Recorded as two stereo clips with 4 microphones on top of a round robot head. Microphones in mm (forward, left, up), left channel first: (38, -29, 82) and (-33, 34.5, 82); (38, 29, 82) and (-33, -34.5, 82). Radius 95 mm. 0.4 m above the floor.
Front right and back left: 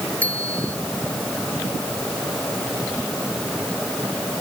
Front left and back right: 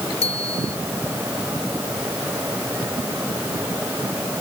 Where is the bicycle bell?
35° left.